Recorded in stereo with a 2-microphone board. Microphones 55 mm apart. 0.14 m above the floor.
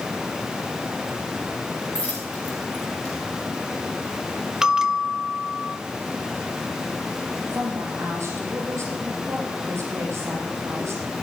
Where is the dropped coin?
20° left (ahead or behind), 6 m.